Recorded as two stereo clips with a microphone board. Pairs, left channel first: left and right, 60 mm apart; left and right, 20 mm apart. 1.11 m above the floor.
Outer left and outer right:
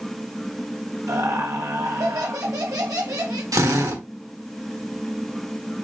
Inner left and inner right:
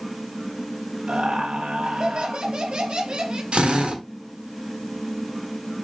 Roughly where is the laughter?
Right.